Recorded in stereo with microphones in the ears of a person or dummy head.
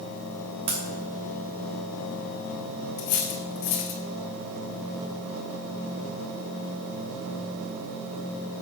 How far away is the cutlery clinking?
About 1.9 m.